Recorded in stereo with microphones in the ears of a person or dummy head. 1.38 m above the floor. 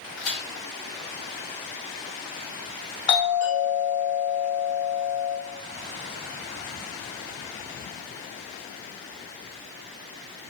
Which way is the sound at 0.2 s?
55° left (ahead or behind).